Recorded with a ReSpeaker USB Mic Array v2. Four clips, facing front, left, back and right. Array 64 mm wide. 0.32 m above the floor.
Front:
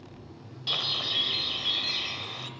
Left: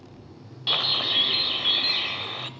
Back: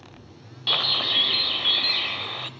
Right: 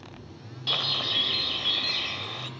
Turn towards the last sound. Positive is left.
turn(degrees=160)